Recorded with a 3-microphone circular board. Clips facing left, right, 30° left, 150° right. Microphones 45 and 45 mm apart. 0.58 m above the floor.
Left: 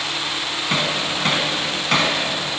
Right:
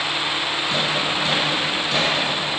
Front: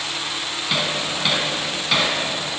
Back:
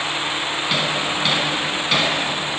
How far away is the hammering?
About 4 m.